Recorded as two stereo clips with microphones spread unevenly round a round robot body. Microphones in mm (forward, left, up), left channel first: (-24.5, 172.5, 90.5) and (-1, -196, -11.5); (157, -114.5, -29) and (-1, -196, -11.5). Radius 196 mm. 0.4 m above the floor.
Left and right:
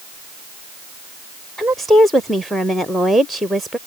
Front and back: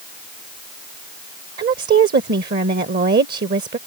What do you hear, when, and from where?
1.6 s a woman speaking: 160° right